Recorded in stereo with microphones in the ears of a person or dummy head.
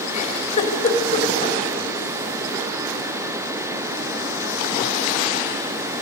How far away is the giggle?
About 3.5 m.